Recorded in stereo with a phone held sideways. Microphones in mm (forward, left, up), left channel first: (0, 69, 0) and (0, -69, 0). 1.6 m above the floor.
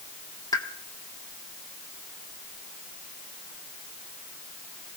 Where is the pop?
25° left (ahead or behind), 1.2 m.